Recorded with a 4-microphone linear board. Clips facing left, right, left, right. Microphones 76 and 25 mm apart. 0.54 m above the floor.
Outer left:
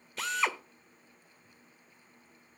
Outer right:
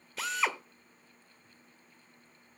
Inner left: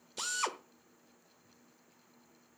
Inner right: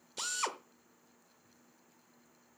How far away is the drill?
About 0.9 m.